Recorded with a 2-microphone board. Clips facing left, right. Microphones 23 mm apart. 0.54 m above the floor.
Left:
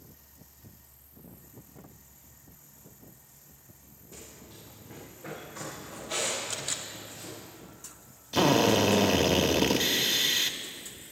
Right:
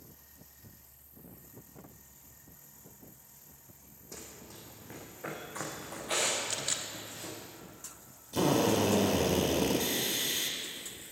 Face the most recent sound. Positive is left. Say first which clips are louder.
# left 5 dB
turn(degrees=40)  # may be behind; listen again after turning